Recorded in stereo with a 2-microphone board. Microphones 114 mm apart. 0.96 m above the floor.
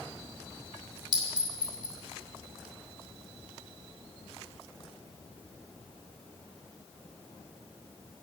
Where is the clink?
40° right (ahead or behind), 2 m.